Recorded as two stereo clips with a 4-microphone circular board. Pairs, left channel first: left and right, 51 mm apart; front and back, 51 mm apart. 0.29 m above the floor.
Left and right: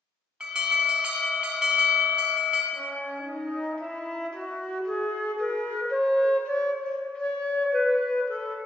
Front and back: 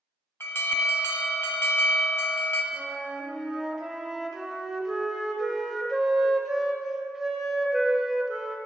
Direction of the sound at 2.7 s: 110° left.